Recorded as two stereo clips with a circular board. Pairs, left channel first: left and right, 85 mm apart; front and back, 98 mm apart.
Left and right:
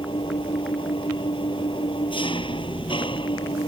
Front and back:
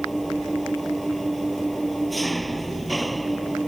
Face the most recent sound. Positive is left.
turn(degrees=90)